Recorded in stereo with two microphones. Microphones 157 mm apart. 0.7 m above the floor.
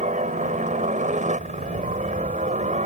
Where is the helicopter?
50° right (ahead or behind).